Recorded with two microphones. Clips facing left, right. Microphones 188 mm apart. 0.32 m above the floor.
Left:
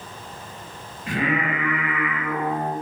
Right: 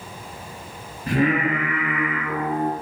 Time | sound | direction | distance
1.1 | singing | 40° right (ahead or behind) | 0.7 m